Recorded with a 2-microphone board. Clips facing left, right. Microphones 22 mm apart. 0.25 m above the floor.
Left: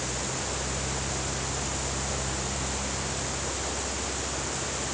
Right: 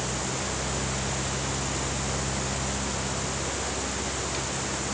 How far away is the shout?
No shout in this recording.